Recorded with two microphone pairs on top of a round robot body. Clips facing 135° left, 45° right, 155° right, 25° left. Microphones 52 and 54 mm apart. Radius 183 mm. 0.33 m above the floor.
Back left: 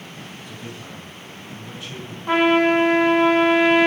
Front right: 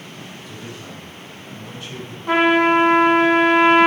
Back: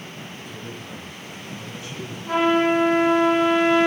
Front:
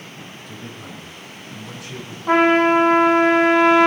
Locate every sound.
0.5 s a man speaking: 55° left, 7 m; by 2.2 s 50° left, 7 m
2.3 s a trumpet: 50° left, 5 m